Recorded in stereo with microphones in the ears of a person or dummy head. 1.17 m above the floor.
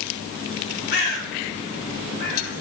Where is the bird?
65° left (ahead or behind), 3.5 m.